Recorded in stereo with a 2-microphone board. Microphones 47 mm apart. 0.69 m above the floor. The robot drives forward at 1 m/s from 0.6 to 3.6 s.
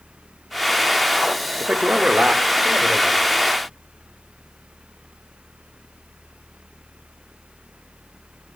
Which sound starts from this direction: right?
A man speaking, at 1.6 s.